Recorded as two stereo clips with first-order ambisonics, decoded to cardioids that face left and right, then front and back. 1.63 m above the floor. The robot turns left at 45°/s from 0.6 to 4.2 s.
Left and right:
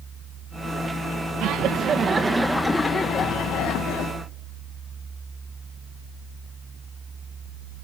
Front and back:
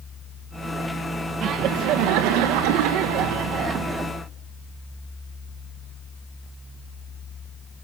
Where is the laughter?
130° right, 1.5 m; by 4.1 s 105° left, 1.5 m.